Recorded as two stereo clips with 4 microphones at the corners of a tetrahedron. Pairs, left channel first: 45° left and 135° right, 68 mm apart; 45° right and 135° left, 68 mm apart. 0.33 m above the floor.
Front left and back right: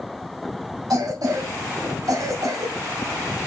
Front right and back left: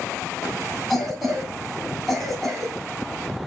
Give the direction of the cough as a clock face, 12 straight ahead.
4 o'clock.